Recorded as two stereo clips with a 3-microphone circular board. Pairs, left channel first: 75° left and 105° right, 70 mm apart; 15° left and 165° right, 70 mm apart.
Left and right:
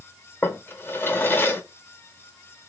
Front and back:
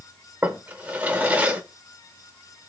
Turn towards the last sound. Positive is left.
turn(degrees=130)